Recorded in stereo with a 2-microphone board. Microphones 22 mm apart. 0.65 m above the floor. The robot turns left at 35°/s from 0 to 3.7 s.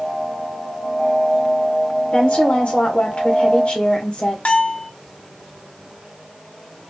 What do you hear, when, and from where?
2.1 s a woman speaking: 120° left, 1.8 m; by 4.3 s 65° left, 1.8 m
4.5 s a bell: 60° left (ahead or behind), 0.8 m